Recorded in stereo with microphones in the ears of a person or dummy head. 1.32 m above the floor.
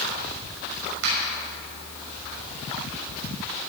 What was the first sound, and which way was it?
A finger snap, 80° right.